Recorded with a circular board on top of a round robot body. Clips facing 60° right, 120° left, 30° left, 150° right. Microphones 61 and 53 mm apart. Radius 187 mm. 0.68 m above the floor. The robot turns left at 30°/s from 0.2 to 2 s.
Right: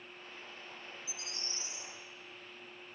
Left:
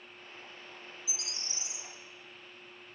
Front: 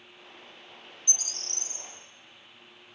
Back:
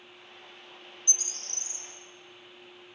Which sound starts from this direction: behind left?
A bird, at 1.1 s.